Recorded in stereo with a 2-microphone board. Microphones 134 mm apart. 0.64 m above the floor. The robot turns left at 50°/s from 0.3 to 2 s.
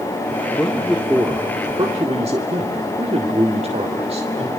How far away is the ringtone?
I don't hear a ringtone.